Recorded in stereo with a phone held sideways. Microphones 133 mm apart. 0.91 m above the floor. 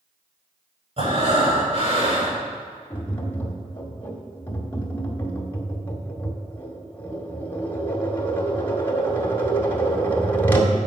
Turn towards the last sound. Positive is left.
turn(degrees=15)  # may be behind; listen again after turning